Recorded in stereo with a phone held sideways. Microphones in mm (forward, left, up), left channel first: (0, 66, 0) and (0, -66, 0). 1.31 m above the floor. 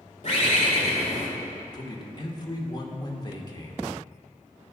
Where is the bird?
60° left (ahead or behind), 2 m.